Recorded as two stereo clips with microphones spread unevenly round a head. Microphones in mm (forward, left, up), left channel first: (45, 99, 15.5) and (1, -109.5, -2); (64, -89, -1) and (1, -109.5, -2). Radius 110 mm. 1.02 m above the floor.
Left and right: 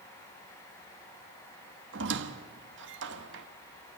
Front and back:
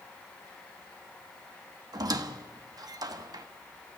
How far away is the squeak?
About 1.3 m.